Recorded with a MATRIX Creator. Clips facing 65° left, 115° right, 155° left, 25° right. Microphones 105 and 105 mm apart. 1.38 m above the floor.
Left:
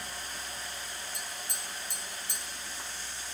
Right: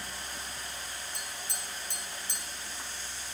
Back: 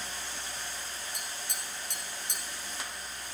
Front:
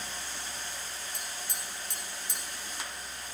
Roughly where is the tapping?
Behind.